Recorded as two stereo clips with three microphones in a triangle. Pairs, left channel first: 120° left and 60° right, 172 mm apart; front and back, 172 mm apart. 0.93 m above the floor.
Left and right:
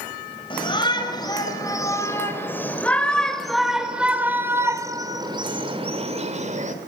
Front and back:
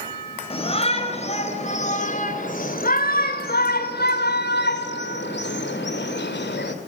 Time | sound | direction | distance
0.5 | a shout | 55° left | 4.5 m